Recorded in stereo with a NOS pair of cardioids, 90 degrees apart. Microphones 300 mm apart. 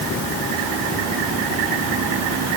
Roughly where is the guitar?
No guitar in this recording.